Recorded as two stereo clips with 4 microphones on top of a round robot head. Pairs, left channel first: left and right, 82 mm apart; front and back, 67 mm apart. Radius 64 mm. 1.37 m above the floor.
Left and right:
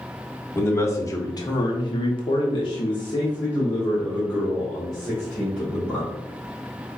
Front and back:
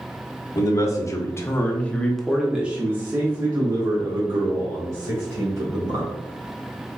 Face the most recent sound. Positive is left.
turn(degrees=155)